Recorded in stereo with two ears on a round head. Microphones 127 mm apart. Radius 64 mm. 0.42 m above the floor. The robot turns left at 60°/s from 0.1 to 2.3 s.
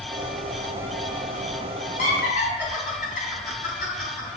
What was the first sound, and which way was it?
Laughter, 65° left (ahead or behind).